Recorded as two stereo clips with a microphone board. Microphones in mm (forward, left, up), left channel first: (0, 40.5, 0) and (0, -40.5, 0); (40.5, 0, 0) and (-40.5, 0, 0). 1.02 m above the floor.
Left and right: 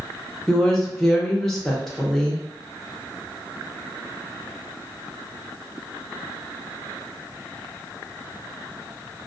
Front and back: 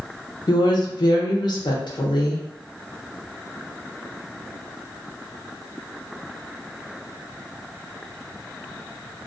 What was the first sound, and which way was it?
A woman speaking, 5° left.